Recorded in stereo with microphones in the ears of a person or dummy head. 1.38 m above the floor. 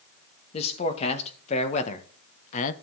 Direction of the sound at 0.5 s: 35° left (ahead or behind).